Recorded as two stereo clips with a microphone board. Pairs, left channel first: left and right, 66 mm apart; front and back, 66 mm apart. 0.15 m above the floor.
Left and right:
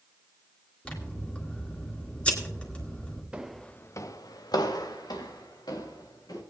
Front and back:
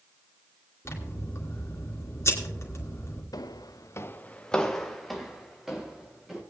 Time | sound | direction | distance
0.8 | scissors | 20° left | 2.5 m
3.3 | footsteps | 15° right | 0.8 m